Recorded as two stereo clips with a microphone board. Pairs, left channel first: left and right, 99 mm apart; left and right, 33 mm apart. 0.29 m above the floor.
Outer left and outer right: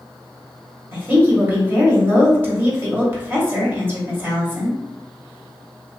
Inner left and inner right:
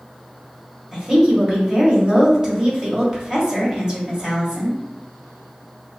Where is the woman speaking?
25° right (ahead or behind), 1.1 m.